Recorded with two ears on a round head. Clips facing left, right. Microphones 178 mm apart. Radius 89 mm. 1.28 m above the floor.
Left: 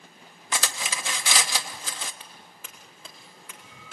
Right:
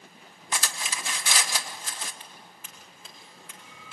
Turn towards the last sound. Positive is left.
turn(degrees=70)  # may be behind; listen again after turning